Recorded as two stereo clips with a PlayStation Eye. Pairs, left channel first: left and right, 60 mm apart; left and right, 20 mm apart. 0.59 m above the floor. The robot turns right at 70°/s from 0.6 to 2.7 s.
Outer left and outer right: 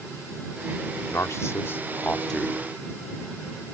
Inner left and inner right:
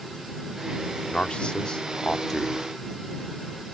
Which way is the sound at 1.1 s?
85° left.